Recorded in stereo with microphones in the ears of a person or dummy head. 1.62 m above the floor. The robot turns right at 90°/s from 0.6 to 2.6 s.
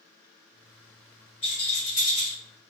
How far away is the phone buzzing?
No phone buzzing in this recording.